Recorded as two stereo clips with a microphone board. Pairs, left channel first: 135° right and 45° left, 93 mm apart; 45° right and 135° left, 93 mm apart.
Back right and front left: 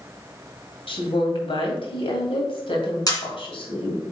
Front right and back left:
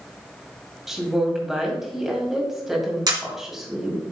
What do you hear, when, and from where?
0.9 s a woman speaking: 140° right, 2 m
3.1 s a camera shutter: straight behind, 2 m